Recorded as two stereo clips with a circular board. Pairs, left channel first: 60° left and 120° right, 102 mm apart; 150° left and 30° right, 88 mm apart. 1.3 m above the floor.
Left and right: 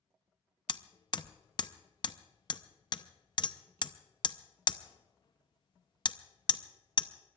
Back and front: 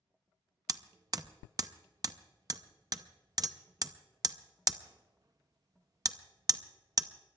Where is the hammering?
15° left, 0.7 m.